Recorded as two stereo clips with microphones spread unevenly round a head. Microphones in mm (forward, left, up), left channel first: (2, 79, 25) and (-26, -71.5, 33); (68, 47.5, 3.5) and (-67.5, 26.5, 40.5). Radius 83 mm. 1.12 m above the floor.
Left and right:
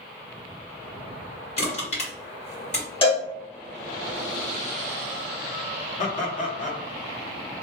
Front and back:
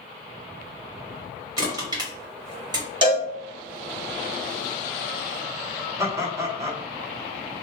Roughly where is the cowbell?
Behind left.